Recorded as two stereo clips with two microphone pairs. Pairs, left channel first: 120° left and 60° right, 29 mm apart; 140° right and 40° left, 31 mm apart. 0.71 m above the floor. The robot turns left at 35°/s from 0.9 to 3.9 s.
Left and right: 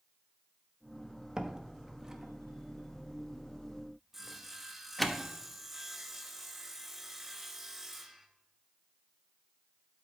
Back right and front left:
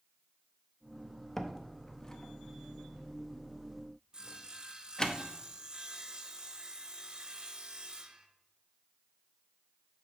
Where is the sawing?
20° left, 0.6 m.